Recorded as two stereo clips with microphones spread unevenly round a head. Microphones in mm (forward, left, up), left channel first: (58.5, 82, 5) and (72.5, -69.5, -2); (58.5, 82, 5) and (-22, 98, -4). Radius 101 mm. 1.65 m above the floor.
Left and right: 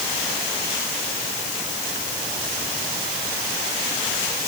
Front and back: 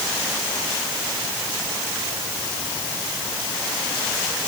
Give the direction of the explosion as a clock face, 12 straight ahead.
I don't hear an explosion.